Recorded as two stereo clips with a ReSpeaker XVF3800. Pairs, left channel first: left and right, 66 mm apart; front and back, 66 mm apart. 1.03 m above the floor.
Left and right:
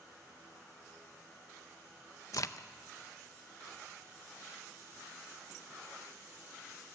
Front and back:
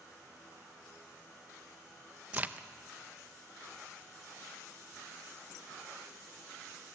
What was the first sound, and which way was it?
A crack, 120° left.